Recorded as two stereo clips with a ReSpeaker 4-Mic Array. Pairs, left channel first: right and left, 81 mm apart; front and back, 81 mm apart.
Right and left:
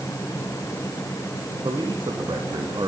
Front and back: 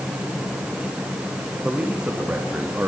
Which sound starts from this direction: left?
A man speaking, at 1.6 s.